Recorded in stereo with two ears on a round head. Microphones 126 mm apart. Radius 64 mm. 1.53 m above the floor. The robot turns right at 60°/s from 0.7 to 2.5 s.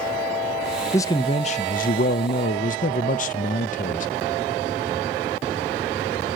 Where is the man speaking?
15° left, 0.5 m; by 4.1 s 110° left, 0.5 m.